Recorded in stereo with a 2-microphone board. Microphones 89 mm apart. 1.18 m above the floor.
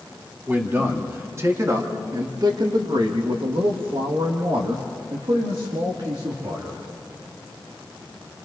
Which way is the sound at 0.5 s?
20° right (ahead or behind).